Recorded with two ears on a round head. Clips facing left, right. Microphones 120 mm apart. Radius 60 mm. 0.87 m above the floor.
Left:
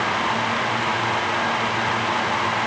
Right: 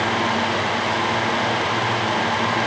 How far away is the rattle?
No rattle in this recording.